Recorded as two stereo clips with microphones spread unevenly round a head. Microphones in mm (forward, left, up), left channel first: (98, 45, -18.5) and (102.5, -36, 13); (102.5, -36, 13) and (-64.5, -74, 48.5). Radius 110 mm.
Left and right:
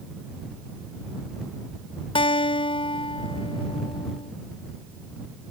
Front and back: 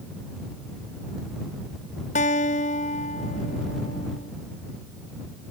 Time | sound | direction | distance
2.1 | a guitar | 75° left | ?